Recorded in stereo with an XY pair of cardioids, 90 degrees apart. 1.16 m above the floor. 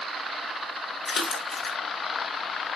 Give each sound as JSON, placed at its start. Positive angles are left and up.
{"t": 1.1, "sound": "a splash", "azimuth_deg": 45, "distance_m": 1.1}